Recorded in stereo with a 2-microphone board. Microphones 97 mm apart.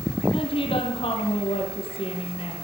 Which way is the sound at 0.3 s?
75° left (ahead or behind).